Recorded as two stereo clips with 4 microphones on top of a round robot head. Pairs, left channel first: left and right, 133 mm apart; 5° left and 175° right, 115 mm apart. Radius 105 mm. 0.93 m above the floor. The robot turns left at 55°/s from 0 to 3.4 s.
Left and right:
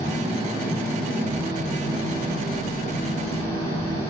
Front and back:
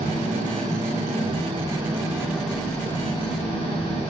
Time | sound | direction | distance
0.0 | an engine running | 130° right | 8.5 m